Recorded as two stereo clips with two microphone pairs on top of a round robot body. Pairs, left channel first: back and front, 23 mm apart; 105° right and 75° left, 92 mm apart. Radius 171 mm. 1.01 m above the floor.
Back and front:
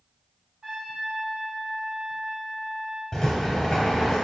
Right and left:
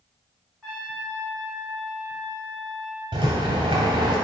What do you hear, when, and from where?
0.6 s a trumpet: 20° right, 1.2 m
3.1 s a rattle: 90° left, 0.8 m